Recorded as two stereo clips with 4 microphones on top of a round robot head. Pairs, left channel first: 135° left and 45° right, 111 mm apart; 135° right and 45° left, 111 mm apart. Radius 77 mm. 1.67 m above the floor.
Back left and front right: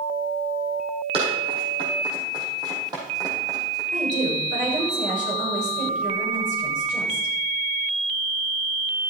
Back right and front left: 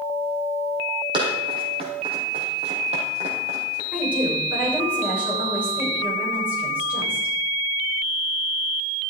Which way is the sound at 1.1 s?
5° right.